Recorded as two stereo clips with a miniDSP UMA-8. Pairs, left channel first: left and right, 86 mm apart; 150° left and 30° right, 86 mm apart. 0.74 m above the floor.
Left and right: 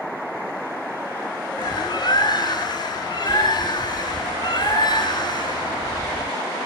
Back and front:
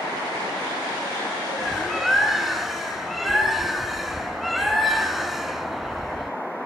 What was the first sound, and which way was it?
A bird, 60° left.